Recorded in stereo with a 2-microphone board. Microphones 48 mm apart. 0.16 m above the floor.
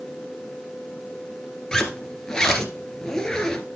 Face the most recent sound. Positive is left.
turn(degrees=15)  # may be behind; listen again after turning